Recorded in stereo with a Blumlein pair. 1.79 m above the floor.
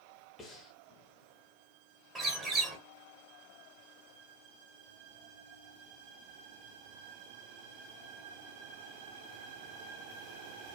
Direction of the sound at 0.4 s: 15° left.